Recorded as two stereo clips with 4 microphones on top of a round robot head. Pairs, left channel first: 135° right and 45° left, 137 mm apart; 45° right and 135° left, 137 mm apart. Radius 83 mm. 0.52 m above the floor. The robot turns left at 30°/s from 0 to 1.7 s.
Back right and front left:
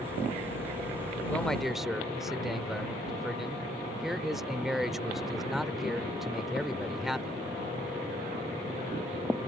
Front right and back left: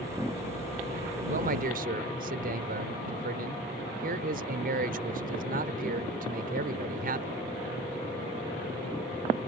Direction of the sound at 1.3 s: 145° left.